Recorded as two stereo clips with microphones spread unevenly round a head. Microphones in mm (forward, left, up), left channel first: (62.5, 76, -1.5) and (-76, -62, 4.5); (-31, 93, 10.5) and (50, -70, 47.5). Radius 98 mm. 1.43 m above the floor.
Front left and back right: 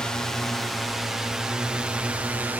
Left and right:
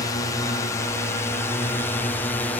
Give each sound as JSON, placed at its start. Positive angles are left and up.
{"t": 0.0, "sound": "a drone", "azimuth_deg": 130}